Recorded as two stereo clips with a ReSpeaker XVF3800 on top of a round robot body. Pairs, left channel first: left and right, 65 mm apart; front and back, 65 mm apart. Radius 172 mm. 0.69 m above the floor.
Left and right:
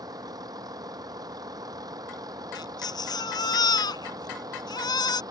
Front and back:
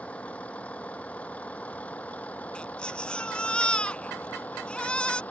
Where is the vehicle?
70° right; by 5.3 s 65° right.